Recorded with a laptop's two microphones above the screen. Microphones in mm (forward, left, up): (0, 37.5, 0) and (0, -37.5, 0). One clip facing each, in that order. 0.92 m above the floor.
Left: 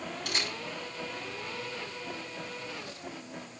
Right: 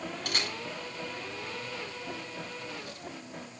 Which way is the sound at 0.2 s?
55° right (ahead or behind).